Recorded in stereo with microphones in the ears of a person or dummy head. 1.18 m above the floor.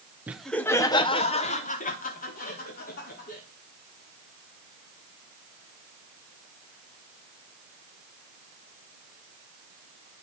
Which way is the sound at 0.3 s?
10° right (ahead or behind).